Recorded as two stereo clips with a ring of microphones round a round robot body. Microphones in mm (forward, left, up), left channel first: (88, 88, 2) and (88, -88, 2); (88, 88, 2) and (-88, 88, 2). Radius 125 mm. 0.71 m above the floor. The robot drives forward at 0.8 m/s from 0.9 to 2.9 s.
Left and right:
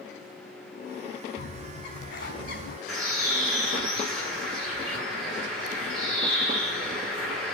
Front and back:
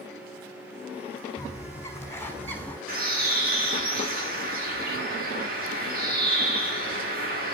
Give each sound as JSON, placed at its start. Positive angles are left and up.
{"t": 1.4, "sound": "a bird", "azimuth_deg": 70, "distance_m": 6.0}
{"t": 2.9, "sound": "a bird", "azimuth_deg": 145, "distance_m": 10.0}